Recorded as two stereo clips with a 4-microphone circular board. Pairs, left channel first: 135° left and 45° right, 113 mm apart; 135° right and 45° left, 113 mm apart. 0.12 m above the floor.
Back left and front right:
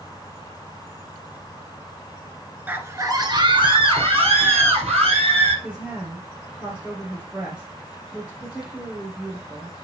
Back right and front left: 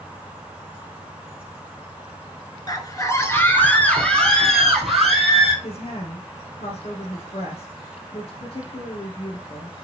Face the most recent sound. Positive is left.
turn(degrees=-125)